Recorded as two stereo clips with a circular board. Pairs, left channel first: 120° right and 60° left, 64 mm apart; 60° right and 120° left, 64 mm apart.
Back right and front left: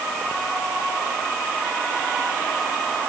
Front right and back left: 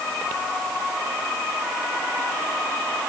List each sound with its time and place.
Only background noise.